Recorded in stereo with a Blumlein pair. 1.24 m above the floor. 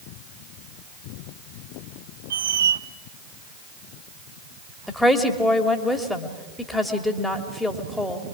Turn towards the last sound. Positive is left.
turn(degrees=5)